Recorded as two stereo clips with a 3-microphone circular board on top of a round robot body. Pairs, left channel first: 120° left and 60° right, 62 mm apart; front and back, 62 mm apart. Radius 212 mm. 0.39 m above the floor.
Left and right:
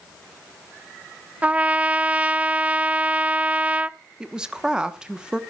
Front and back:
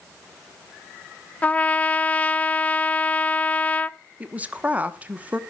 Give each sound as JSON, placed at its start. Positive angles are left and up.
{"t": 1.4, "sound": "a trumpet", "azimuth_deg": -25, "distance_m": 0.7}
{"t": 4.2, "sound": "a woman speaking", "azimuth_deg": -130, "distance_m": 1.1}